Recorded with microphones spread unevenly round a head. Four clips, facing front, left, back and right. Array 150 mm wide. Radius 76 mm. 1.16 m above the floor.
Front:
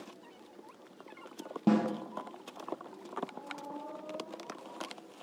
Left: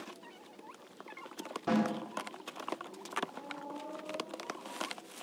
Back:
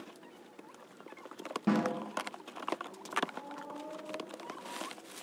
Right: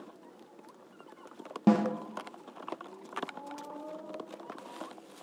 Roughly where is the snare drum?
Ahead right.